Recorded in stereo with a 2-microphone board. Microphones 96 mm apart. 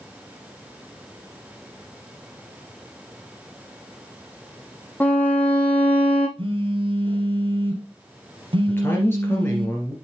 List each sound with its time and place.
5.0 s a violin: 15° left (ahead or behind), 1.6 m
6.4 s a phone buzzing: 65° right (ahead or behind), 2.5 m
8.7 s a man speaking: 25° left (ahead or behind), 2.5 m